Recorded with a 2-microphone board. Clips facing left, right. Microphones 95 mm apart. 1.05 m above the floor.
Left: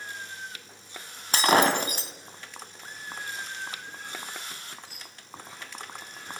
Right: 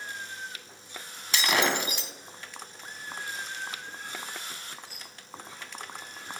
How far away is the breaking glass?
About 2.5 m.